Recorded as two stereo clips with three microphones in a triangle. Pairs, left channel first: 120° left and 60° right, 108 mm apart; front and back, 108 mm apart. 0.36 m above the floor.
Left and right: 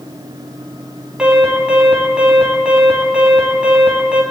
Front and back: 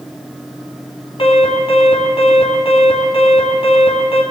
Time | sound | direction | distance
1.2 | an alarm | 20° left | 3 m